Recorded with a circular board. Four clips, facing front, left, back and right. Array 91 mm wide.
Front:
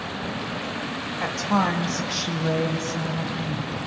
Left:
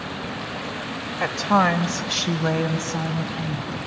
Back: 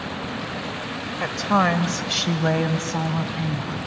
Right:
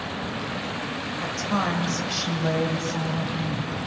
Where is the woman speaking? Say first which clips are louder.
Left 8 dB, back 3 dB; 100° left, 1.6 m; by 3.8 s straight behind, 4 m.